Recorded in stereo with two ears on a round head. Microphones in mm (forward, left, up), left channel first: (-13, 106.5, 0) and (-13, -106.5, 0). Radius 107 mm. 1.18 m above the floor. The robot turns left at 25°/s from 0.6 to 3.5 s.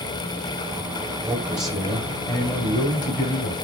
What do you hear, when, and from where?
1.2 s a man speaking: 170° right, 5.5 m; by 3.6 s 135° left, 5.5 m